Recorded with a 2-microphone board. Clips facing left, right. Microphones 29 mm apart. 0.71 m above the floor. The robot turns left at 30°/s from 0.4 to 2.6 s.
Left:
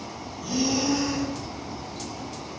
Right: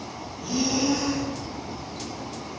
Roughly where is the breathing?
Centre.